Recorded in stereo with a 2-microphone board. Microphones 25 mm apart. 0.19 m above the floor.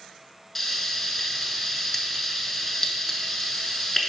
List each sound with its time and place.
0.6 s frying: 10° left (ahead or behind), 0.8 m